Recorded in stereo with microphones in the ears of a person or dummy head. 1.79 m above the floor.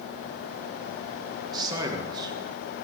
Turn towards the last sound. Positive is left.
turn(degrees=-25)  # may be behind; listen again after turning